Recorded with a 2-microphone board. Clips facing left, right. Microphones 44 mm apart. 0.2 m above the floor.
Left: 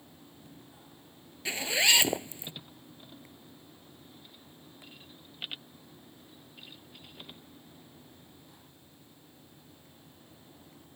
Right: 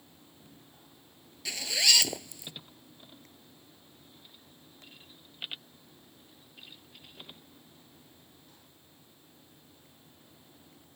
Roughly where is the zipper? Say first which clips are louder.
Left 2 dB; left.